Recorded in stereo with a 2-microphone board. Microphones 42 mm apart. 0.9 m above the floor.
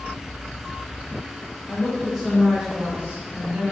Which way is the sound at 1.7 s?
25° left (ahead or behind).